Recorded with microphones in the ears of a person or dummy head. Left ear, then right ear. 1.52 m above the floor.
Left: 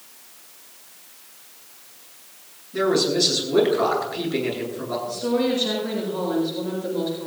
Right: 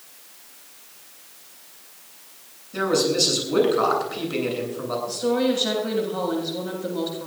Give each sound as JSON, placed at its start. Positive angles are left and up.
{"t": 2.7, "sound": "a man speaking", "side_deg": -85, "distance_m": 10.0}
{"t": 5.1, "sound": "a woman speaking", "side_deg": -20, "distance_m": 7.0}